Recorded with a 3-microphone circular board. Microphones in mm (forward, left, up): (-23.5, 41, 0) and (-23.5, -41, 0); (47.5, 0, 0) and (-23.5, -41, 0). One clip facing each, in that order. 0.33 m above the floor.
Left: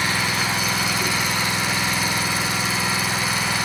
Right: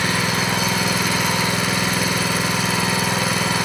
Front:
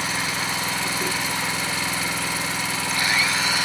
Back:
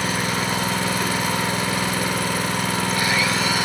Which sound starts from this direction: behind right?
An engine running, at 0.0 s.